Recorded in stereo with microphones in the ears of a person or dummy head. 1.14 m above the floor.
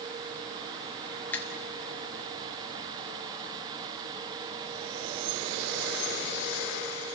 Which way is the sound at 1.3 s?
10° left (ahead or behind).